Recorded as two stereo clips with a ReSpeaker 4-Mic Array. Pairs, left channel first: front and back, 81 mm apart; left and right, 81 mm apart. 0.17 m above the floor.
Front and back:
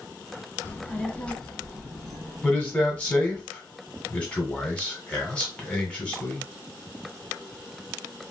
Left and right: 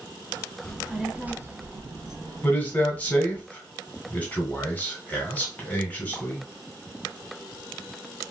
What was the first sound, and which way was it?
A child speaking, 20° left.